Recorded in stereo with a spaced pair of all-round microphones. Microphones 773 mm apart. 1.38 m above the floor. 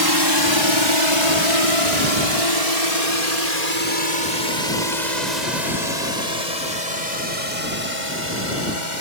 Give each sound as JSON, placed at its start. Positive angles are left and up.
{"t": 0.0, "sound": "a drone", "side_deg": -30}